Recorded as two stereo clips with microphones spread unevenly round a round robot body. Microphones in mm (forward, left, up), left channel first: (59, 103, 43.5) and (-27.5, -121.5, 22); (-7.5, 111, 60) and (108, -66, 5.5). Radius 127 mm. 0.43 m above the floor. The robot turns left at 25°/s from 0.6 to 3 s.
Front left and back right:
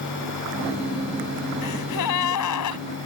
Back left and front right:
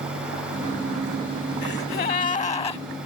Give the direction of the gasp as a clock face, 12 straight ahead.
9 o'clock.